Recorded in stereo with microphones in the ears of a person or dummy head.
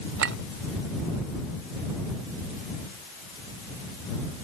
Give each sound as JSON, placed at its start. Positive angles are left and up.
{"t": 0.2, "sound": "a clink", "side_deg": -60}